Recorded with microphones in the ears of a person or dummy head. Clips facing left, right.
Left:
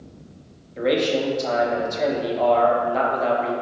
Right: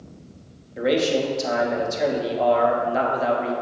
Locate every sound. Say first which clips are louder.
0.8 s a man speaking: even; 10° right (ahead or behind), 1.3 m